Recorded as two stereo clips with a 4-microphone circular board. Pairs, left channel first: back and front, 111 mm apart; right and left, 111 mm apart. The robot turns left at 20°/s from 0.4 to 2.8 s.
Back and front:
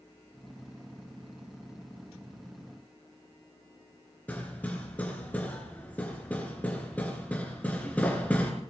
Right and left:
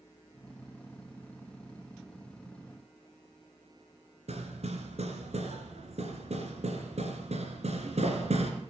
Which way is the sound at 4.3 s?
105° left.